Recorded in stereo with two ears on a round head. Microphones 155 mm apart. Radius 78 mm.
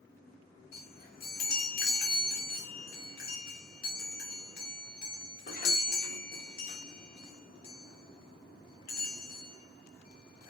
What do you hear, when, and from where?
0.7 s a chime: 60° left (ahead or behind), 3 m